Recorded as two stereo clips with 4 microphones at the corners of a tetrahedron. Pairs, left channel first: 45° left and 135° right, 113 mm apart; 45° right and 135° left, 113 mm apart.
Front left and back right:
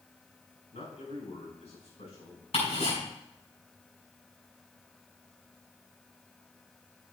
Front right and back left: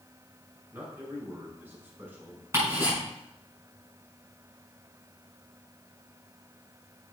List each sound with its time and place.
0.7 s a man speaking: 60° left, 5.5 m
2.5 s ticking: 70° left, 5.5 m